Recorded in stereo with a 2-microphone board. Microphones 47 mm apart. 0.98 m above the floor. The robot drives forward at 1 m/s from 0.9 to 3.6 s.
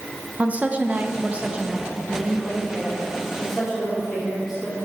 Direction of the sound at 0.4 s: 30° right (ahead or behind).